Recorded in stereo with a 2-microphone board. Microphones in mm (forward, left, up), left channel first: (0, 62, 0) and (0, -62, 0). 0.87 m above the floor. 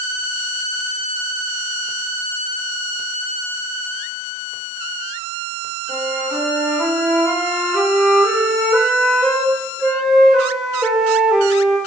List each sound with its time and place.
5.9 s a flute: 5° right (ahead or behind), 1.7 m